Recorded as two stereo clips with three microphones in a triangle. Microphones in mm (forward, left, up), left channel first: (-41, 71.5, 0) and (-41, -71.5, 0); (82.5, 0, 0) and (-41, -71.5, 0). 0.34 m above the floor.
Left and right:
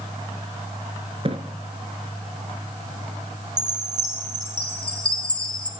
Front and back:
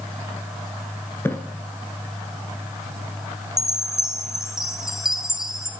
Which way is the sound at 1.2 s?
45° right.